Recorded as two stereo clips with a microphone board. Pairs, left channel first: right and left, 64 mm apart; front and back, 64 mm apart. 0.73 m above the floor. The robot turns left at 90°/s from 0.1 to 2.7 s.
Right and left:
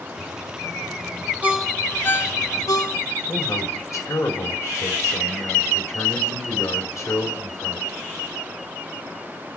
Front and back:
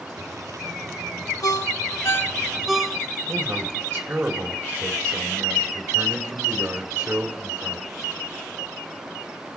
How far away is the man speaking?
About 2.5 m.